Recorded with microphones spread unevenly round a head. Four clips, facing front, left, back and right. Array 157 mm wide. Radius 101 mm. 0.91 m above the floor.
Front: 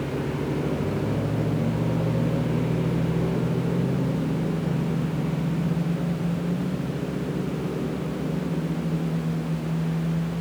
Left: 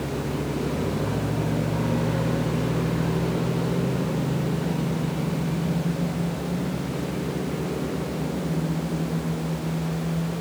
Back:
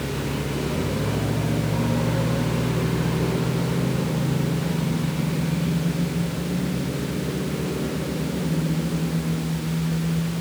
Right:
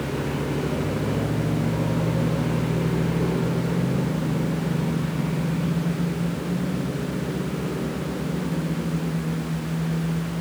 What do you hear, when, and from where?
Only background noise.